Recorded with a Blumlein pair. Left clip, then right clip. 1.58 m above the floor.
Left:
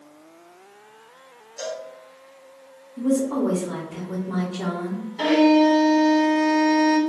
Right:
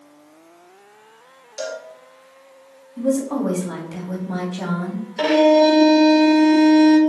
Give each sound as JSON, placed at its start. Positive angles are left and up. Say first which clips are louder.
{"t": 1.6, "sound": "a cowbell", "louder": "right 2 dB", "azimuth_deg": -65, "distance_m": 1.5}
{"t": 3.0, "sound": "a woman speaking", "louder": "right 1 dB", "azimuth_deg": -70, "distance_m": 2.5}
{"t": 5.2, "sound": "a violin", "louder": "right 3 dB", "azimuth_deg": -55, "distance_m": 1.8}